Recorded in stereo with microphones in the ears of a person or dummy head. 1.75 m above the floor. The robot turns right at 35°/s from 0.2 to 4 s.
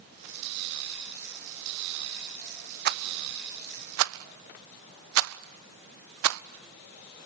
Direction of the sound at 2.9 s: 50° right (ahead or behind).